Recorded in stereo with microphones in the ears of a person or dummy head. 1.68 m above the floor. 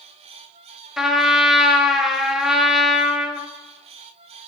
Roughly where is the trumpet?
Centre.